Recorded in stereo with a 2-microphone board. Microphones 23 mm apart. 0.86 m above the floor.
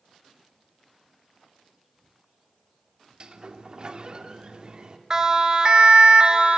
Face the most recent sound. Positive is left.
turn(degrees=-50)  # may be behind; listen again after turning